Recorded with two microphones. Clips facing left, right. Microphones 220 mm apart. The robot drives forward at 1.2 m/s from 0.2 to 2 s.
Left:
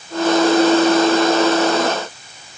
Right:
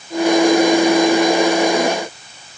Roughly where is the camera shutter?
I don't hear a camera shutter.